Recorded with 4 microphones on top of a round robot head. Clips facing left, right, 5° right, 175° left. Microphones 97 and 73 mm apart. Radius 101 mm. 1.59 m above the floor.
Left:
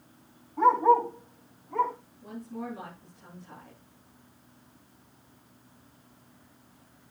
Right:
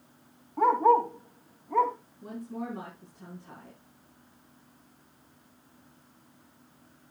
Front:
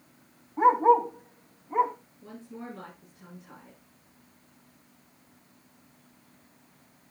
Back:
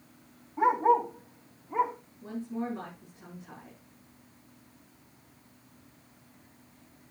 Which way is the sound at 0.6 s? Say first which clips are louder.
Left 1 dB, front 4 dB; 65° right.